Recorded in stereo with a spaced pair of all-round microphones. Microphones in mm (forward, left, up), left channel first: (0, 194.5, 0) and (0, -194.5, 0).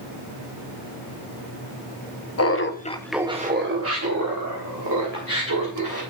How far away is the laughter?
About 0.9 m.